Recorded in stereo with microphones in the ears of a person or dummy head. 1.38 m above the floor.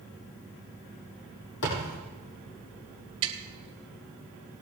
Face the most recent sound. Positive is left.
turn(degrees=-30)  # may be behind; listen again after turning